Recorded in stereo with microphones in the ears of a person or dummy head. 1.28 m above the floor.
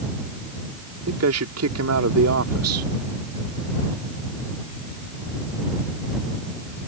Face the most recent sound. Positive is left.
turn(degrees=-85)